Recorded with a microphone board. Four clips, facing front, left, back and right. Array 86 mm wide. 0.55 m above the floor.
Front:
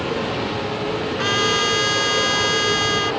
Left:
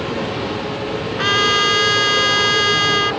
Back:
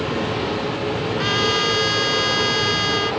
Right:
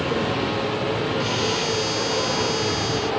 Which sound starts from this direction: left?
A trumpet, at 1.2 s.